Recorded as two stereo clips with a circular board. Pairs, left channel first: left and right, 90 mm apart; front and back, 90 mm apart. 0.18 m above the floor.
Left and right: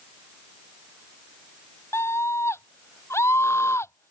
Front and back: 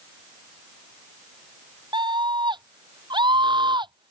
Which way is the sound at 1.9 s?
150° left.